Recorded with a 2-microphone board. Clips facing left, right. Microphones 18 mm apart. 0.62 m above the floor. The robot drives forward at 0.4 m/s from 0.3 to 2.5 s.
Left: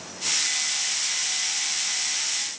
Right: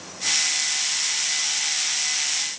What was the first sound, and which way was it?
Only background noise.